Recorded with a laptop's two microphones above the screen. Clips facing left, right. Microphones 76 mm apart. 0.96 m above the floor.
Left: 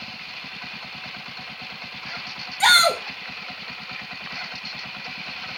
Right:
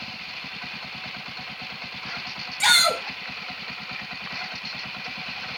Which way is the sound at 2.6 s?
45° left (ahead or behind).